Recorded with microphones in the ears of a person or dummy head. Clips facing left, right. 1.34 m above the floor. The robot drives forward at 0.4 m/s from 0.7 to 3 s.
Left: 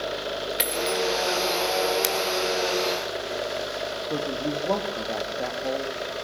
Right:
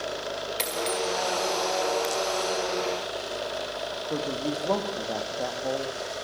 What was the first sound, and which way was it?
A dropped coin, 10° left (ahead or behind).